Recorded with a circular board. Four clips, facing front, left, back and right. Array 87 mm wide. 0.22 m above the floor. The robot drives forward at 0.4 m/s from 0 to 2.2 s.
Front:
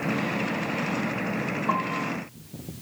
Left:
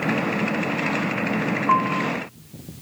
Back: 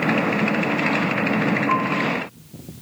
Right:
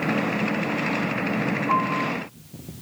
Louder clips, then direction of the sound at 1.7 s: Left 4 dB, back 6 dB; 40° left.